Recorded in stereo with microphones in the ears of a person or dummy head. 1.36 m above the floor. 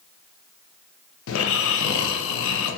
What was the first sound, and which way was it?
Snoring, 70° left (ahead or behind).